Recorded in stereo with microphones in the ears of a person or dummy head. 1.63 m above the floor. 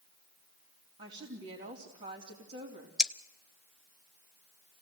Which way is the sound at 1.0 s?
40° right (ahead or behind).